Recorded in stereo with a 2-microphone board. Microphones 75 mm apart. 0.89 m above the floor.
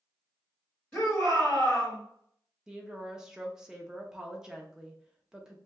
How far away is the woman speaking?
About 0.6 m.